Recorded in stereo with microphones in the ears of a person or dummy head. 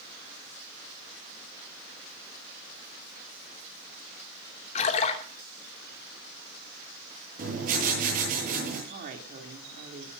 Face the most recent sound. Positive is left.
turn(degrees=-55)  # may be behind; listen again after turning